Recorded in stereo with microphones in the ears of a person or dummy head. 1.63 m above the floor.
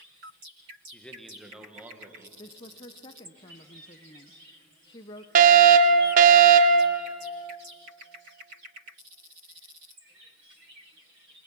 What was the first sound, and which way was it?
A man speaking, 5° left (ahead or behind).